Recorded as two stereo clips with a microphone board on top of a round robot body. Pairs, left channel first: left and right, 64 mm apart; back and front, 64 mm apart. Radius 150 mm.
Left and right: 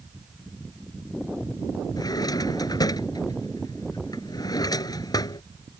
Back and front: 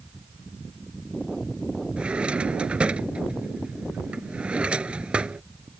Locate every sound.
2.0 s a drawer: 75° left